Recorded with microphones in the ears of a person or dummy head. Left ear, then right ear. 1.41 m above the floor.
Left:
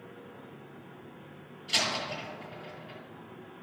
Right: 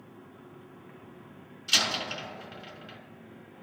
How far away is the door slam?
About 4 m.